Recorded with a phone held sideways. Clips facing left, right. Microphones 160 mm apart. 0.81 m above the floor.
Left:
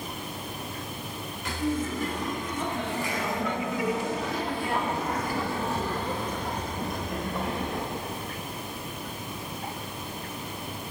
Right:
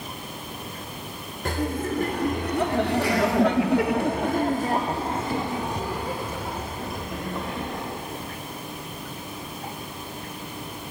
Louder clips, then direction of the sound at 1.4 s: Right 2 dB; 50° right (ahead or behind).